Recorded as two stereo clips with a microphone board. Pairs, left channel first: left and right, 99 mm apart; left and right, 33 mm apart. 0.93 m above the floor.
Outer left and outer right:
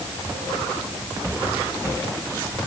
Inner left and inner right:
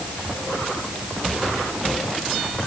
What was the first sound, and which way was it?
Only background noise.